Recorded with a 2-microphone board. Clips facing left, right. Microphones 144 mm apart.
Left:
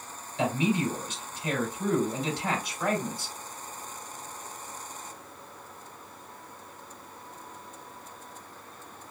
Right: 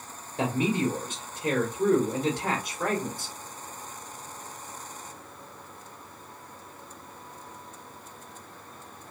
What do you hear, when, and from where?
0.4 s a man speaking: 45° right (ahead or behind), 1.9 m